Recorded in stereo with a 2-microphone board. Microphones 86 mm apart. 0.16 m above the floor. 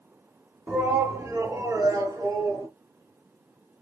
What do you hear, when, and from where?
0.7 s a shout: 20° right (ahead or behind), 1.2 m; by 2.7 s 55° right (ahead or behind), 2.0 m